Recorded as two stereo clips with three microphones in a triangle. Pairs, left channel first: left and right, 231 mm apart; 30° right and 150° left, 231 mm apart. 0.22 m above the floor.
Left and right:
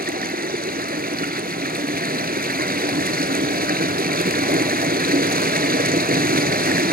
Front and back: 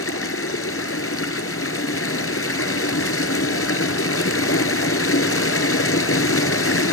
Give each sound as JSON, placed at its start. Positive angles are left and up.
{"t": 0.0, "sound": "running water", "azimuth_deg": -40, "distance_m": 1.3}